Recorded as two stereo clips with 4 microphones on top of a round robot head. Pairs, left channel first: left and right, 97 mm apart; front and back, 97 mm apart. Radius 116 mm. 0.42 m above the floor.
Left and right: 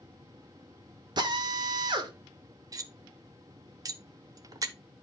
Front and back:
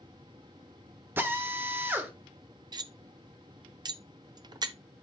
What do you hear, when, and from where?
1.2 s a drill: 115° right, 1.4 m
2.7 s cutlery clinking: 140° right, 0.9 m